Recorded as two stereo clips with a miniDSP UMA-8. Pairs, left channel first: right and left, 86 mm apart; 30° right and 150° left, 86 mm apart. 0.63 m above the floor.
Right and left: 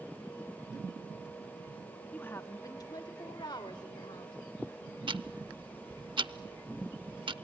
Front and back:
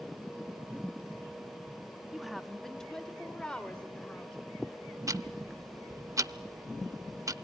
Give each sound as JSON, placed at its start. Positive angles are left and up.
{"t": 2.1, "sound": "a woman speaking", "azimuth_deg": -135, "distance_m": 0.9}
{"t": 5.1, "sound": "ticking", "azimuth_deg": 100, "distance_m": 0.6}